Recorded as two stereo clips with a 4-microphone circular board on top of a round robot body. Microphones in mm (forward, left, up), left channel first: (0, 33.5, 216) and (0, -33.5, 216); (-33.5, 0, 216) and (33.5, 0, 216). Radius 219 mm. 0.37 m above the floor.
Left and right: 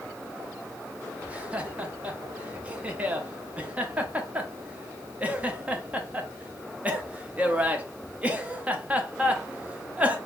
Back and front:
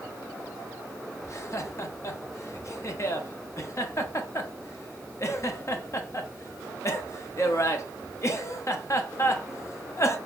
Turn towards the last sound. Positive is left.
turn(degrees=-155)